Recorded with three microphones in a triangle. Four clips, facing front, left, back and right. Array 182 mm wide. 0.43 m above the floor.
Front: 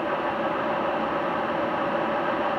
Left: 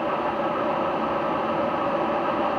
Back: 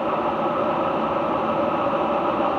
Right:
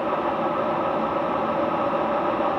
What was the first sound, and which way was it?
Only background noise.